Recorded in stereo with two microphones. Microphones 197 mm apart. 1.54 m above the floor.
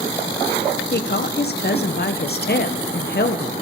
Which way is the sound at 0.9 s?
55° left (ahead or behind).